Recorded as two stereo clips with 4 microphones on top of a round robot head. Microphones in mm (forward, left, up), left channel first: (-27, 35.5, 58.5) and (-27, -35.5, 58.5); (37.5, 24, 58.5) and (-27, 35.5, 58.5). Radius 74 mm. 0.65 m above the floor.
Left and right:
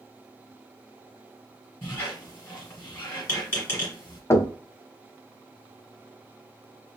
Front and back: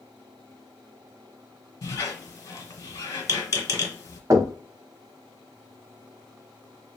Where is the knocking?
140° left, 1.0 m.